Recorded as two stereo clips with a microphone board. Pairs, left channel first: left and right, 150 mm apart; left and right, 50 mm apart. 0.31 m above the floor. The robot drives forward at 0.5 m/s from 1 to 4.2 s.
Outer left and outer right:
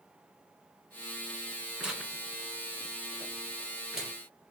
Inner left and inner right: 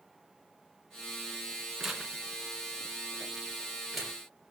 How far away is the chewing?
I don't hear chewing.